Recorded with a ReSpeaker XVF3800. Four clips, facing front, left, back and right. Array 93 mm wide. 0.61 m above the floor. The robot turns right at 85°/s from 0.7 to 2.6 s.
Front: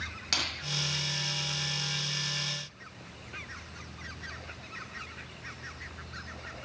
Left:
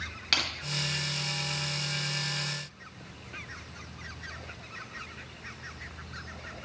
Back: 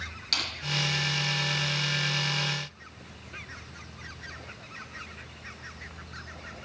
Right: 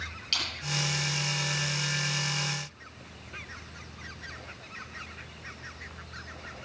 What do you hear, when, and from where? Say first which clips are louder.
0.3 s crushing: left 5 dB, even; 70° left, 6.5 m